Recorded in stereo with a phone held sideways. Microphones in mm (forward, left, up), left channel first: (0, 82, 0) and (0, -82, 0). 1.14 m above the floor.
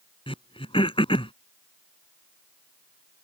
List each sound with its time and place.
0.3 s throat clearing: 35° left (ahead or behind)